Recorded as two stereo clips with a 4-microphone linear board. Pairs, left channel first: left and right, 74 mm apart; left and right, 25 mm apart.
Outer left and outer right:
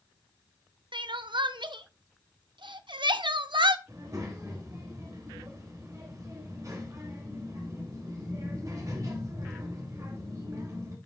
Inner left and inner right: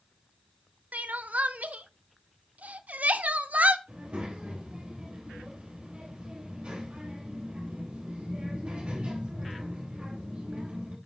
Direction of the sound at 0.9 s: 85° right.